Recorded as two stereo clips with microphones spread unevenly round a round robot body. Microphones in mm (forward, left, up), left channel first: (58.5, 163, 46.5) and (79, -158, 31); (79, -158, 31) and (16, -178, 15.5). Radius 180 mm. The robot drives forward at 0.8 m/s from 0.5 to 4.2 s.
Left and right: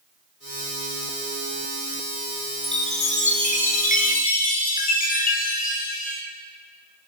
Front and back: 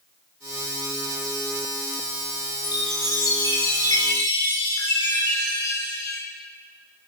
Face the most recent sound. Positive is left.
turn(degrees=30)